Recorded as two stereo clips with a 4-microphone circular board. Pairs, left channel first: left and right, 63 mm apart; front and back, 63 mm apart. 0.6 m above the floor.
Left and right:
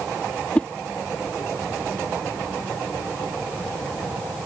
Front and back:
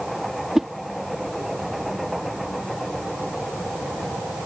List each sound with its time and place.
0.6 s a whoosh: 110° left